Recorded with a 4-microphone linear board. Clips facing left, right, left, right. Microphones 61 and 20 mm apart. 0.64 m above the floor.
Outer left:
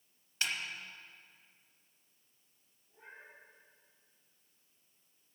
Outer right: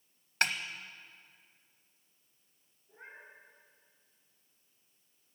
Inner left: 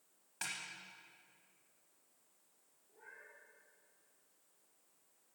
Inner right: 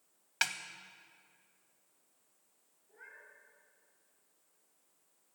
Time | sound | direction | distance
0.4 | a snare drum | 65° right (ahead or behind) | 1.1 m
2.9 | a cat meowing | 60° right (ahead or behind) | 5.5 m